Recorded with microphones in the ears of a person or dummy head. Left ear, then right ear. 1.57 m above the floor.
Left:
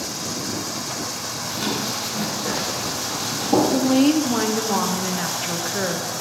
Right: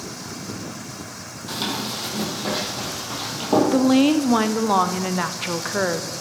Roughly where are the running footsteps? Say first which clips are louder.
Right 1 dB; right.